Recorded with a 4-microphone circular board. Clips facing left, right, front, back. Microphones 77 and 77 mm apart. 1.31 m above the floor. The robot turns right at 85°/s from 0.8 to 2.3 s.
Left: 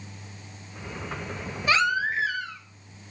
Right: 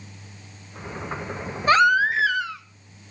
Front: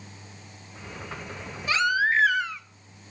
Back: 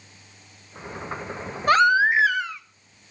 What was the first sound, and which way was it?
A baby crying, 145° right.